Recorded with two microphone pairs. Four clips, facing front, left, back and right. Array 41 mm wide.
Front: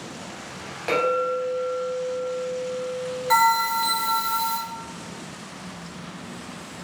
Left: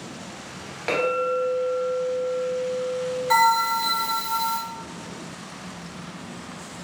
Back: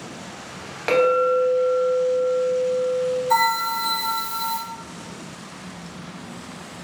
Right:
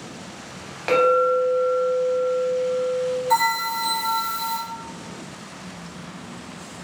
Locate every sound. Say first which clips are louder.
0.9 s a clink: right 6 dB, back 5 dB; 160° right, 0.6 m
3.3 s a bell: left 4 dB, front 4 dB; 35° left, 1.4 m